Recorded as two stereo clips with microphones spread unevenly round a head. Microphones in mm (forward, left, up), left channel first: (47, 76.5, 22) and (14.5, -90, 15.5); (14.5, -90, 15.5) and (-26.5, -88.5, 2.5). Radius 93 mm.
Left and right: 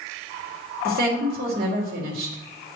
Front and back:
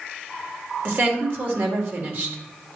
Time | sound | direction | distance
0.8 | a woman speaking | 145° right | 1.9 m